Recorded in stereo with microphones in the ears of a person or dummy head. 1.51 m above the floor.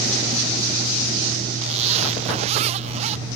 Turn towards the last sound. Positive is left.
turn(degrees=-35)  # may be behind; listen again after turning